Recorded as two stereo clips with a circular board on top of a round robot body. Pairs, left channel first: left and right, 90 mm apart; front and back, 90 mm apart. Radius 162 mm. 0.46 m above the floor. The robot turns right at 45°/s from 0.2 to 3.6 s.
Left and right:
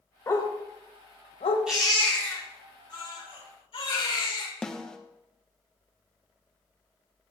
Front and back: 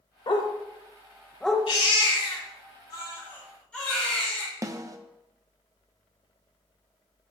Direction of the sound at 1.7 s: 10° right.